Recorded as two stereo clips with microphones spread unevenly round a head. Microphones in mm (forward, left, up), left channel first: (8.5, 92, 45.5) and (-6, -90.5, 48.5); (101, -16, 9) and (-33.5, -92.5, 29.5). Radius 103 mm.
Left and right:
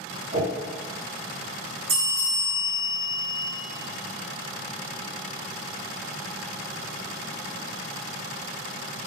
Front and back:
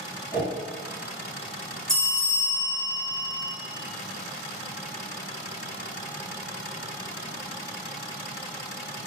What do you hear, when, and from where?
0.3 s a whoosh: 80° right, 1.7 m
1.9 s a bell: 60° right, 0.9 m